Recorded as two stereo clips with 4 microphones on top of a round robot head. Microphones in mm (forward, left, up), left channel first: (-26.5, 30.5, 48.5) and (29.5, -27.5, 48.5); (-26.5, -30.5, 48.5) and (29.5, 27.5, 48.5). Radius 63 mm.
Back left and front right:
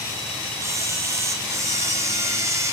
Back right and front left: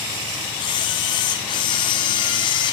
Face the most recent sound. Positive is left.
turn(degrees=-105)